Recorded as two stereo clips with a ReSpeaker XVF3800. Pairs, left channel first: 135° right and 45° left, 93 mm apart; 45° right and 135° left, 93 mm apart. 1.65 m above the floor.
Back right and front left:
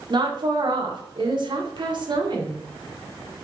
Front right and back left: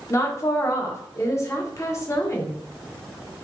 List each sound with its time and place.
0.1 s a woman speaking: 15° left, 1.2 m